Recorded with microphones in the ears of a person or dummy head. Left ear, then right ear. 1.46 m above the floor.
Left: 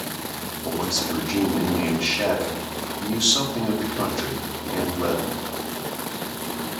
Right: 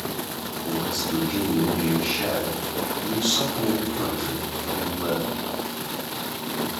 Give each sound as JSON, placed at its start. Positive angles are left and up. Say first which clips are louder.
{"t": 0.6, "sound": "a man speaking", "louder": "left 2 dB", "side_deg": 80, "distance_m": 1.5}